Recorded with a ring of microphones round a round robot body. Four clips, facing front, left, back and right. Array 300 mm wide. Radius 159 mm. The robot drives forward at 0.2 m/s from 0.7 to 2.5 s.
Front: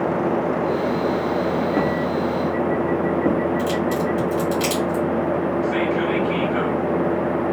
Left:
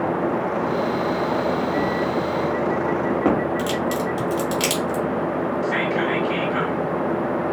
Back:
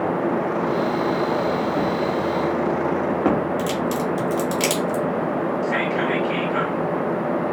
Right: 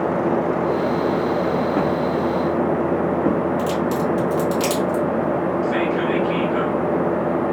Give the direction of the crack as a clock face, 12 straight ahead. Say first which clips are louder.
Right 2 dB, front 2 dB; 6 o'clock.